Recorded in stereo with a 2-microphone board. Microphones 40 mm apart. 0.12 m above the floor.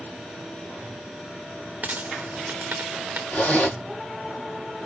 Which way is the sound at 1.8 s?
50° right (ahead or behind).